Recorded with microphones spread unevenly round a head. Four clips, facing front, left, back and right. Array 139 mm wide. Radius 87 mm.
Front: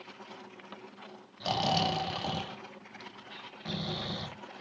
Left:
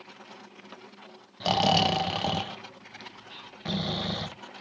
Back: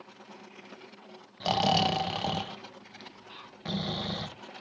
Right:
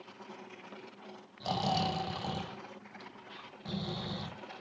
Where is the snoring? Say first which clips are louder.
Left 8 dB, back 4 dB; 100° left, 0.9 m.